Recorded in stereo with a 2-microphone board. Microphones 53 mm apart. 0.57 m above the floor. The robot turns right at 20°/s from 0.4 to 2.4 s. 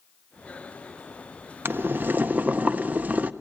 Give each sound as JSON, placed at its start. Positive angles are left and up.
{"t": 1.6, "sound": "boiling", "side_deg": -45, "distance_m": 0.5}